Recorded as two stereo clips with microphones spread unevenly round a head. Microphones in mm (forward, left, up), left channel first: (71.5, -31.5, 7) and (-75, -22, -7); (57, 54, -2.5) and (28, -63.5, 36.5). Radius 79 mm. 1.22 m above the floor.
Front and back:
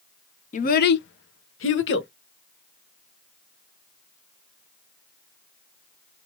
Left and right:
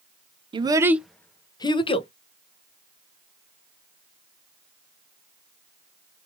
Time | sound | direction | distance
0.5 | a child speaking | 50° right | 0.5 m